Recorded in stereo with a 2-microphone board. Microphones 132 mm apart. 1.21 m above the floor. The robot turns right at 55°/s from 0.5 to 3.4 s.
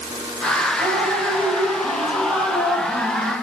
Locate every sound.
0.8 s dripping: 125° right, 2.5 m; by 3.3 s 15° left, 2.5 m